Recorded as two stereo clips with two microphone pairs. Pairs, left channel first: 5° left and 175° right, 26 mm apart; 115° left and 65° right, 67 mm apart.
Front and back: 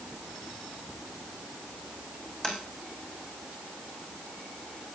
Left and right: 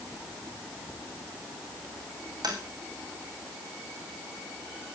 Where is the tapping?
55° right, 4.5 m.